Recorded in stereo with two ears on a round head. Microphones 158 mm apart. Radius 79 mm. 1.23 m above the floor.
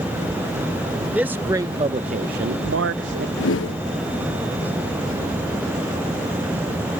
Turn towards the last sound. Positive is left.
turn(degrees=80)